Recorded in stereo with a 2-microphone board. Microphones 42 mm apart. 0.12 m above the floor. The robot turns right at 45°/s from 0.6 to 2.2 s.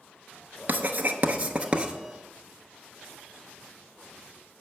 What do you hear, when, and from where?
0.7 s writing: 50° right (ahead or behind), 0.6 m; by 1.9 s 25° right (ahead or behind), 0.6 m